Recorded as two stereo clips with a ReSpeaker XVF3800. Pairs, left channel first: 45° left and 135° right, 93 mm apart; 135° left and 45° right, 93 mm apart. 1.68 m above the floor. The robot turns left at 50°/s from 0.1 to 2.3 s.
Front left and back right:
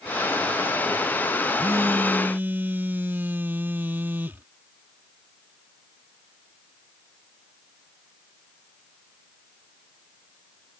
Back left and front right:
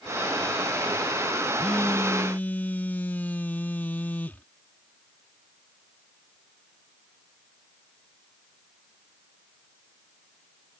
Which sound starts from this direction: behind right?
A phone buzzing, at 1.6 s.